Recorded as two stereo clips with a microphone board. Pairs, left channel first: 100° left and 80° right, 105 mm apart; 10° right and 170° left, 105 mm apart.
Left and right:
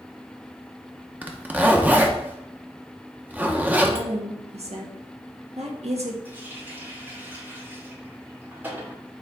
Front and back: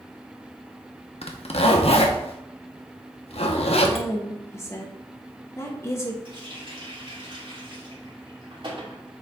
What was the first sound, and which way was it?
A zipper, 5° right.